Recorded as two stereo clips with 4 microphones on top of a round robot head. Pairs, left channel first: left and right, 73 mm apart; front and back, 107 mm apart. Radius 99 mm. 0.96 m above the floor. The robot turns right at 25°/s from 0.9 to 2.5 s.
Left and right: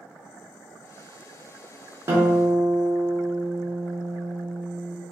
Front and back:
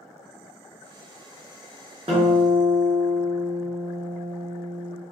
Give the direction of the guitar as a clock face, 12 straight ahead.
4 o'clock.